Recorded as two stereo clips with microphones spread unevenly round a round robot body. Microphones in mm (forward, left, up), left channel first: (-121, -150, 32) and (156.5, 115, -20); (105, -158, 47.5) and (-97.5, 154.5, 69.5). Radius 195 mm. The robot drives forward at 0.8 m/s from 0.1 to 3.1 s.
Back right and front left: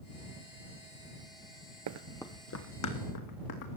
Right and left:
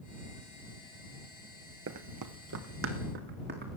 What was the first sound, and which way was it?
Running footsteps, 80° left.